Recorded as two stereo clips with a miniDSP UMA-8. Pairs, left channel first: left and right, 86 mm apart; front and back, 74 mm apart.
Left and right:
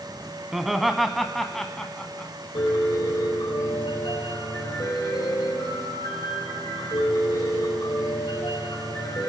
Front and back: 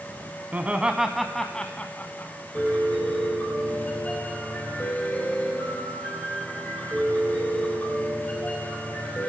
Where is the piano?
70° left, 5 m.